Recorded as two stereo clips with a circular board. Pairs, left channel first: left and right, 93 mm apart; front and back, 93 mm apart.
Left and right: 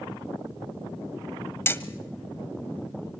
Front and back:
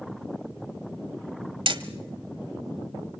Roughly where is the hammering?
Behind left.